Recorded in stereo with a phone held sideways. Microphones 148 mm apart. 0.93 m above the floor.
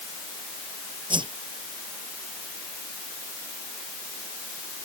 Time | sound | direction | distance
1.1 | a whoosh | 30° right (ahead or behind) | ?